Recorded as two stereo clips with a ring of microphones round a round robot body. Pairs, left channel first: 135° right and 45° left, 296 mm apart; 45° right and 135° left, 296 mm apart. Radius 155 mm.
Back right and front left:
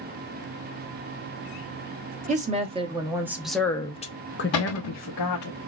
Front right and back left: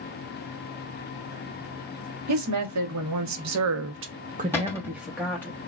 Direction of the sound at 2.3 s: 110° left.